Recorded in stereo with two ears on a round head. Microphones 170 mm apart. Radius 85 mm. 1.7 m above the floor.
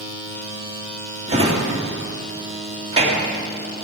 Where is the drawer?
35° right (ahead or behind), 1.9 m.